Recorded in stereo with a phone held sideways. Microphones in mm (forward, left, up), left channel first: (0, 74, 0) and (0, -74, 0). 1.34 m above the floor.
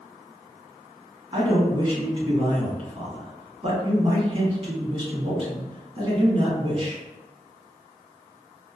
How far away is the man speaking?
About 1.5 m.